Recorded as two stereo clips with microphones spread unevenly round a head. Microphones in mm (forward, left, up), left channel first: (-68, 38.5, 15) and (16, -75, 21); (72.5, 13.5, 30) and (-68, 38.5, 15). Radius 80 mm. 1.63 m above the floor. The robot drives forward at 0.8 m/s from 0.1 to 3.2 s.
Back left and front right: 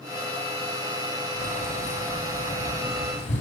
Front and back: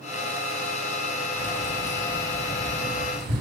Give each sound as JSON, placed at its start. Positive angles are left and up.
{"t": 1.4, "sound": "keys jangling", "azimuth_deg": 170, "distance_m": 5.5}